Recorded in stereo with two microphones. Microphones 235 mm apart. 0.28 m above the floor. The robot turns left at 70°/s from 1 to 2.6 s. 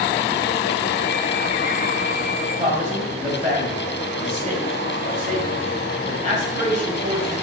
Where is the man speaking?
30° right (ahead or behind), 1.2 m.